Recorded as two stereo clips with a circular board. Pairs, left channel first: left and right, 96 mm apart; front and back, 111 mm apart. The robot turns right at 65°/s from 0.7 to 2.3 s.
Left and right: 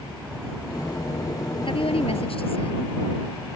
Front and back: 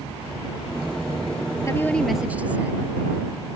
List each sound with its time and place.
1.6 s a woman speaking: 60° left; by 3.0 s 105° left